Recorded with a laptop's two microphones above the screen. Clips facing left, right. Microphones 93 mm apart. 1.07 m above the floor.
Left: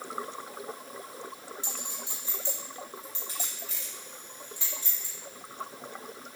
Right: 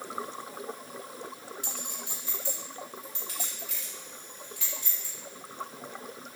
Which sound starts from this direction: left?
A clink, at 1.6 s.